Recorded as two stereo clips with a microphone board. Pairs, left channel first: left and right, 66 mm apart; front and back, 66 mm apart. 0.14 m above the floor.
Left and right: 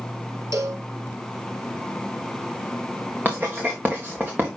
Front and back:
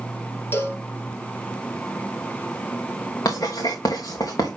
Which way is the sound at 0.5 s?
55° right.